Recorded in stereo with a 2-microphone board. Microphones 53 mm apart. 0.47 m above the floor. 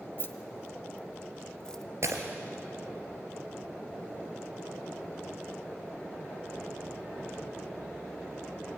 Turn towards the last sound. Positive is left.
turn(degrees=-65)  # may be behind; listen again after turning